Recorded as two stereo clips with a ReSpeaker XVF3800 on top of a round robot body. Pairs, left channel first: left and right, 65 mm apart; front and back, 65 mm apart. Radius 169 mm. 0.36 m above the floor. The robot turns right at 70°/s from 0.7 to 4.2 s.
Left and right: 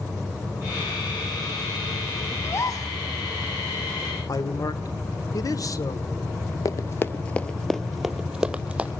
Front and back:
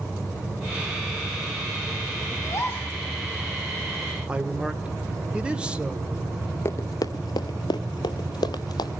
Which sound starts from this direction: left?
A man speaking, at 4.3 s.